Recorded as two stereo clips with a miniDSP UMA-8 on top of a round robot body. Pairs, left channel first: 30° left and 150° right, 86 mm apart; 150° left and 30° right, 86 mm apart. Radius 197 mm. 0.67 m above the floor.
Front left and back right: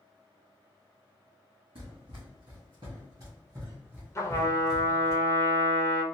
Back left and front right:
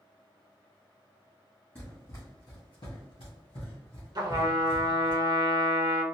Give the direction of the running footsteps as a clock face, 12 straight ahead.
5 o'clock.